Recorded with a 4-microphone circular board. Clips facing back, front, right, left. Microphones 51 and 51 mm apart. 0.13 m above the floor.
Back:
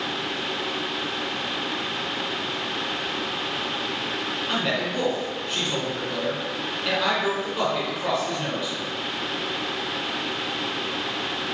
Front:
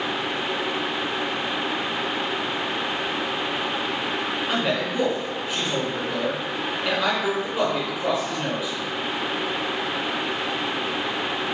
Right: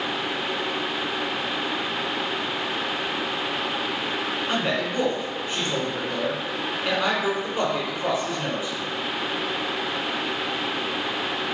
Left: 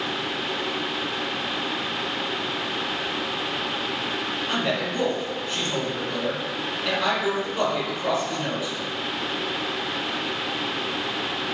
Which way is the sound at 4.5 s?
65° right.